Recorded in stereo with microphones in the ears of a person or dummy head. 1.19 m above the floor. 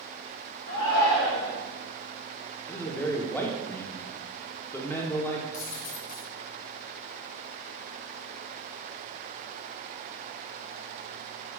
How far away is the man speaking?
About 1.0 m.